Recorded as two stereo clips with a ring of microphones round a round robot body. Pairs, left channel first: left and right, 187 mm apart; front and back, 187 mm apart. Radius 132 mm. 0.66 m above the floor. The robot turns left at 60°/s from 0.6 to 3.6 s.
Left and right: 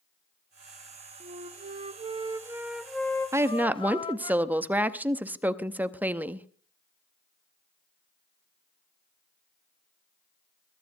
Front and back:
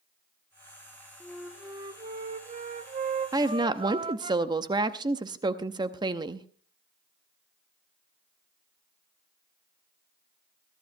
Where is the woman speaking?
140° right, 0.7 m; by 6.5 s 155° right, 0.7 m.